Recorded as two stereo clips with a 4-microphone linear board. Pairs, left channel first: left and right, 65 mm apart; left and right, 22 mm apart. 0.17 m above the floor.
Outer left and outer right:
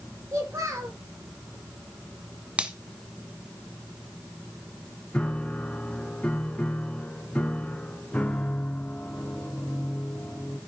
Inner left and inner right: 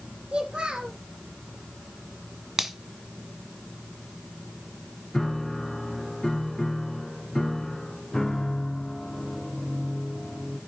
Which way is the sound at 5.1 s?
20° left (ahead or behind).